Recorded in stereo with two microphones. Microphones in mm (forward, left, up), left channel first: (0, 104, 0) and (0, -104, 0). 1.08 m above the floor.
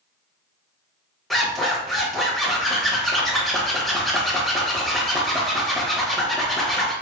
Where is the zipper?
Centre (ahead or behind), 0.9 m.